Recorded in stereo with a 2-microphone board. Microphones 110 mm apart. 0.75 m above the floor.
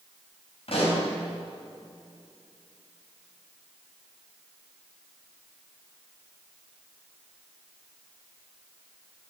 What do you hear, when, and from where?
0.7 s a pop: 60° left (ahead or behind), 4 m